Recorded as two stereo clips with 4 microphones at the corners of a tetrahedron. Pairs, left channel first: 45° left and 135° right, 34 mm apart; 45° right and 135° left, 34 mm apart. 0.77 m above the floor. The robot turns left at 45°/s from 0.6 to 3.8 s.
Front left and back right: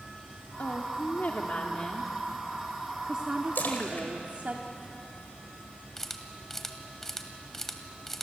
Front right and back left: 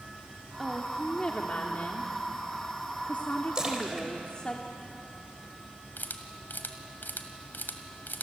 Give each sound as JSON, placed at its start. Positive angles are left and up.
{"t": 0.6, "sound": "a woman speaking", "azimuth_deg": 45, "distance_m": 1.7}
{"t": 3.5, "sound": "a splash", "azimuth_deg": 70, "distance_m": 4.0}
{"t": 6.0, "sound": "a camera shutter", "azimuth_deg": -30, "distance_m": 2.0}